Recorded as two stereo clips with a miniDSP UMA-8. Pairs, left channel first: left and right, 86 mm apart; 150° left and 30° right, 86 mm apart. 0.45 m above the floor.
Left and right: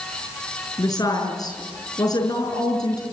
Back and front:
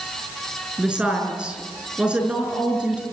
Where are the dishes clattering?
I don't hear dishes clattering.